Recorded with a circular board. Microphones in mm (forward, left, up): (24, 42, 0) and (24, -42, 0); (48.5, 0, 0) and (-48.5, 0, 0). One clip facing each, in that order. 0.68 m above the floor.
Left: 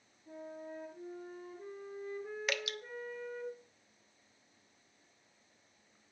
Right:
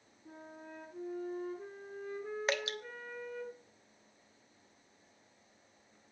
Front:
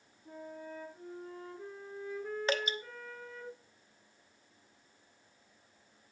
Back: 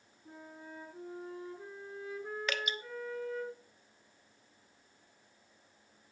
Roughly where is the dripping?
Ahead right.